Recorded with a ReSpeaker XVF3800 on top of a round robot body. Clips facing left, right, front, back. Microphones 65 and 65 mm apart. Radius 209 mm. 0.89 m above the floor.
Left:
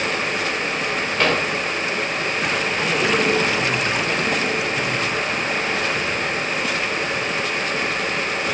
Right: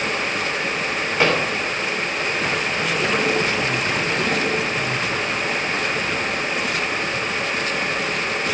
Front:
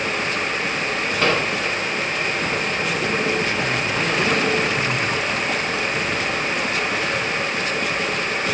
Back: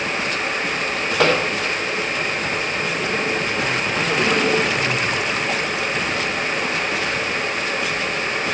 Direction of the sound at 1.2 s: 165° right.